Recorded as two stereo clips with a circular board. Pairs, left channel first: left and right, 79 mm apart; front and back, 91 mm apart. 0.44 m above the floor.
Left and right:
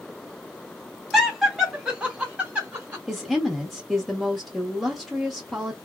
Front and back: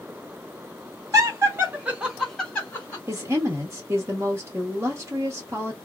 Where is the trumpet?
I don't hear a trumpet.